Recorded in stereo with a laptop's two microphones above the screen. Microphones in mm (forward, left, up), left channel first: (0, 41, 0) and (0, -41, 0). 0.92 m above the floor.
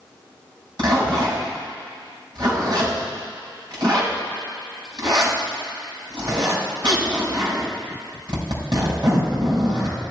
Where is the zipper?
60° right (ahead or behind), 5.5 m.